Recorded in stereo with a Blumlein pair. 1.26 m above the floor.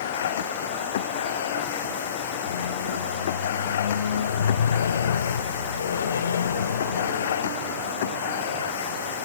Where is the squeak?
70° left.